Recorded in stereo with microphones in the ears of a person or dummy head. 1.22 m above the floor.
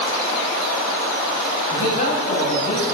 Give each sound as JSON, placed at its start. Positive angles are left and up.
{"t": 1.7, "sound": "a man speaking", "side_deg": 55, "distance_m": 8.5}